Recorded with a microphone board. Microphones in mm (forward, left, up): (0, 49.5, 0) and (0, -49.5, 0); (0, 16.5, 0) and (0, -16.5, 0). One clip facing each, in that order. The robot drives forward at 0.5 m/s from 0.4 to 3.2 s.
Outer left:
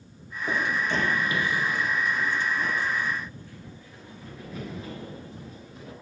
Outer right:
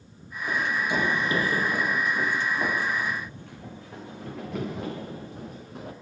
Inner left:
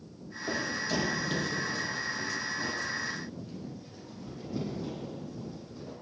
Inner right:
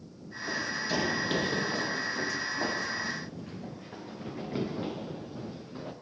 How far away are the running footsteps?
About 1.0 m.